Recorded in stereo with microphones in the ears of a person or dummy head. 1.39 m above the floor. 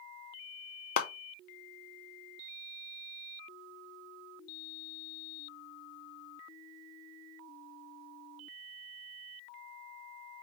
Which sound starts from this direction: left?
A clap, at 1.0 s.